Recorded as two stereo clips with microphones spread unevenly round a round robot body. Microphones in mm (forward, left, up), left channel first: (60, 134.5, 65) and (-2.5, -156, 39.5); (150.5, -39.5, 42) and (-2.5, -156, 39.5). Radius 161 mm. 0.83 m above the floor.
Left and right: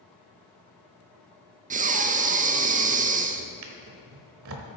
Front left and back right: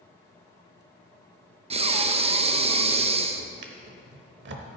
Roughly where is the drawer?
Behind right.